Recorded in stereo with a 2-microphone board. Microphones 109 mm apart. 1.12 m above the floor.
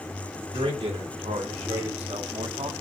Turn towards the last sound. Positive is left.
turn(degrees=-75)  # may be behind; listen again after turning